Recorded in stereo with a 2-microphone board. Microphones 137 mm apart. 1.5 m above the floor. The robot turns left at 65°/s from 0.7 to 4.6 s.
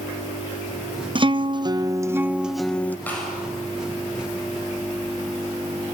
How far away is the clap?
About 7 m.